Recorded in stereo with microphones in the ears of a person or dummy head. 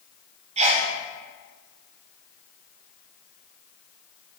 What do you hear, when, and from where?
0.6 s a sneeze: 35° right (ahead or behind), 1.0 m